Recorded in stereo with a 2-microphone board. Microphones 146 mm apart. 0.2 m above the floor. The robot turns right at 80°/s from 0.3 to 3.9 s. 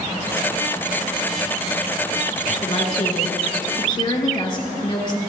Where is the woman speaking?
40° left, 2.5 m; by 5.2 s 145° left, 2.5 m.